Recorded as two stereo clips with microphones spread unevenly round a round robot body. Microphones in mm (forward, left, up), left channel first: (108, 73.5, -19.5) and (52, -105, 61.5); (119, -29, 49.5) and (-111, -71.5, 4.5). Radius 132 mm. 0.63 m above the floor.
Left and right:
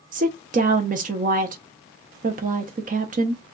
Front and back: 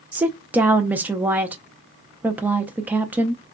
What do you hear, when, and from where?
0.1 s a woman speaking: 145° right, 0.6 m